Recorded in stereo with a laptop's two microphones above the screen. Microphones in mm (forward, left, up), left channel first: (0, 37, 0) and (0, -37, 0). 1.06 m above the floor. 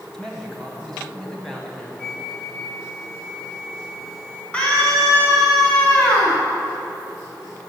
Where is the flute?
5° left (ahead or behind), 6 m.